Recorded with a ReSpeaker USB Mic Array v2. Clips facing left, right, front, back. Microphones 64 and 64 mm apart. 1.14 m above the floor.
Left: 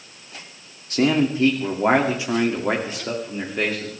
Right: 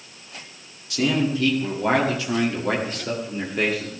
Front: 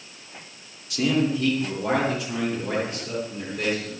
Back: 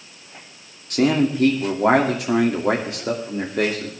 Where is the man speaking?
140° left, 2.5 m; by 3.9 s straight behind, 2.5 m.